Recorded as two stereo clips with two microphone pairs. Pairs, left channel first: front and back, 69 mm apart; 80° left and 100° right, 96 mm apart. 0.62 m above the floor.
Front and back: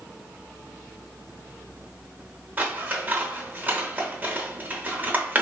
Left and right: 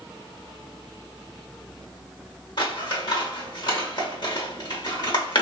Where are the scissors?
115° left, 0.9 m.